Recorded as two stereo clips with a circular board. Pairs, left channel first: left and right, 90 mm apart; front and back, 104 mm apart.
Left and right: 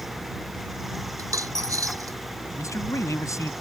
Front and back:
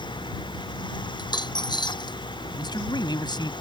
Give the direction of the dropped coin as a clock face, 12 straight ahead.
1 o'clock.